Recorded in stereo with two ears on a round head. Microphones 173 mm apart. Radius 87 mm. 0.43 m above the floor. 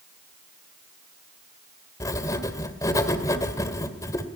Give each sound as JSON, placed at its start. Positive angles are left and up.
{"t": 2.0, "sound": "writing", "side_deg": 20, "distance_m": 1.8}